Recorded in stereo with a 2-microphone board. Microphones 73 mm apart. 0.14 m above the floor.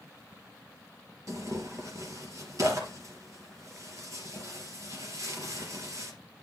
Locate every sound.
1.3 s tearing paper: 45° right (ahead or behind), 3.5 m